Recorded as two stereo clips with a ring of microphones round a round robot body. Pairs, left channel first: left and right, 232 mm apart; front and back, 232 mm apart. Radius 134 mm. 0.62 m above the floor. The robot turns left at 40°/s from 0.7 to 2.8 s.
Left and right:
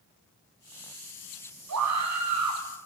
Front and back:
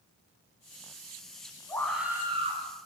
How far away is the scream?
About 5 m.